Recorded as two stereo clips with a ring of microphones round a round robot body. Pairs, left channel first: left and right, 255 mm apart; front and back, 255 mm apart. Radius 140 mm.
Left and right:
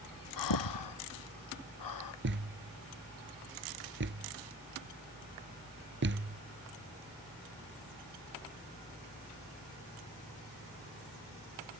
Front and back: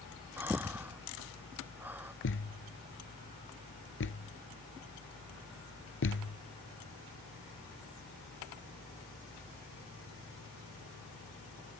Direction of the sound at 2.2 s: 45° right.